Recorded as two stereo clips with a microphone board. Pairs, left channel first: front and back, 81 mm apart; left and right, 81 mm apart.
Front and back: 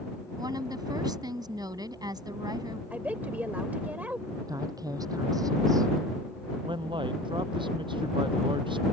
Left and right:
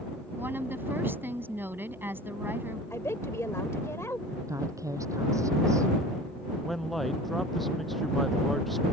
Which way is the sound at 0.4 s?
150° right.